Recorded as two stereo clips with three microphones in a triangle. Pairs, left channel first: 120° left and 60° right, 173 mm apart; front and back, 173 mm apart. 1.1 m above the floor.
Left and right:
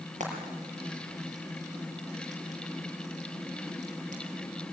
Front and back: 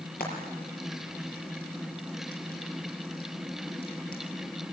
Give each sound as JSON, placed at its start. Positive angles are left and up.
{"t": 0.2, "sound": "frying", "azimuth_deg": -20, "distance_m": 5.5}